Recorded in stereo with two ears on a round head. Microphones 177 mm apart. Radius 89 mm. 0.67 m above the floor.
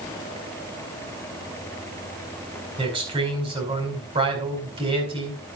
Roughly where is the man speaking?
Right.